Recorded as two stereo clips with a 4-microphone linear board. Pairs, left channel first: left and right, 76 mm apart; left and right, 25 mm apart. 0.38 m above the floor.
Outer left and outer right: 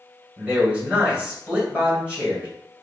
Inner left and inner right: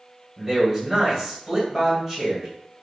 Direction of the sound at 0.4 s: 15° right (ahead or behind).